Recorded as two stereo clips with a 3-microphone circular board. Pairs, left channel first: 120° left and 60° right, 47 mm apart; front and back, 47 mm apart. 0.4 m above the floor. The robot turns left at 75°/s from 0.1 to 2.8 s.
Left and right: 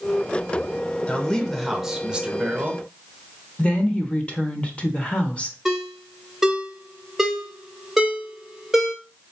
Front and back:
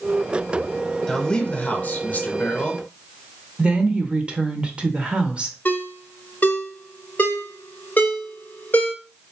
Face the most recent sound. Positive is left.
turn(degrees=20)